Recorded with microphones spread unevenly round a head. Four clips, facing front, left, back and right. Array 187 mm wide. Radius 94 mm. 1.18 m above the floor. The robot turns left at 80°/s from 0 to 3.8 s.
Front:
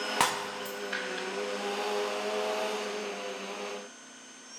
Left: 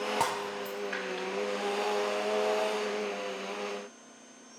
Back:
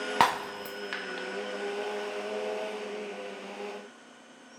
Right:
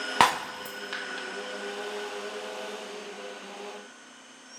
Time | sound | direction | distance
0.2 | breaking glass | 90° right | 0.8 m